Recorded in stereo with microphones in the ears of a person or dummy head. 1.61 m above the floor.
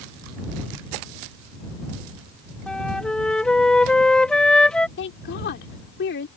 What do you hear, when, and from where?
2.7 s a flute: 5° left (ahead or behind)
5.0 s a woman speaking: 55° left (ahead or behind)